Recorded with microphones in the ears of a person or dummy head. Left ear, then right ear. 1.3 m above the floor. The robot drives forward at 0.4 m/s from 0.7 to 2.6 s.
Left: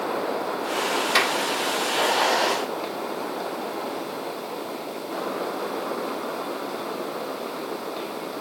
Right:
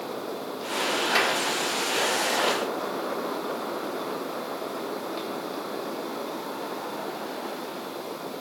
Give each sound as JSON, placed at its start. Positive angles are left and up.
{"t": 1.1, "sound": "a clap", "side_deg": 25}